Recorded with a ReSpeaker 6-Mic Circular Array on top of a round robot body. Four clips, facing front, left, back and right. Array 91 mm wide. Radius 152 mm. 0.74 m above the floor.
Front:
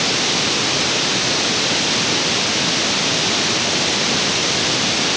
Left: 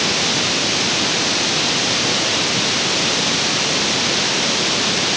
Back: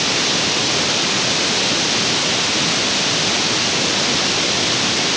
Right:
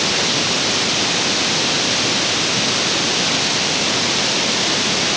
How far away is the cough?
I don't hear a cough.